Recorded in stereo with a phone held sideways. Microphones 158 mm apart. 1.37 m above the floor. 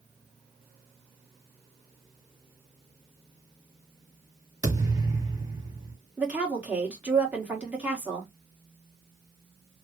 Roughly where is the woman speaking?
Centre.